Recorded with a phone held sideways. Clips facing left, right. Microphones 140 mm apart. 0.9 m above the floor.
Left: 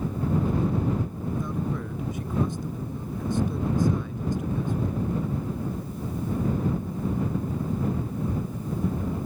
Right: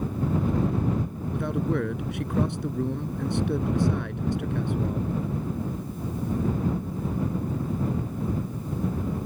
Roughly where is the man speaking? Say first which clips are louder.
Right 5 dB; right.